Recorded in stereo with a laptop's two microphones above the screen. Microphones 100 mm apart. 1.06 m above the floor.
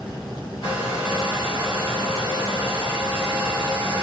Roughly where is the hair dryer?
Left.